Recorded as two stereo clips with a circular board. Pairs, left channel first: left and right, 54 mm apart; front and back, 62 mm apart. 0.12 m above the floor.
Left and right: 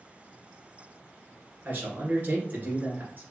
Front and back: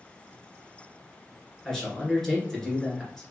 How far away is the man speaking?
About 2.0 m.